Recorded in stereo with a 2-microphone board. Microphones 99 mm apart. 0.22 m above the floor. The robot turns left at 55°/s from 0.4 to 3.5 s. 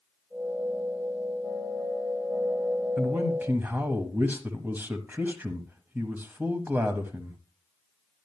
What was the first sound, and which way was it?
A man speaking, 15° right (ahead or behind).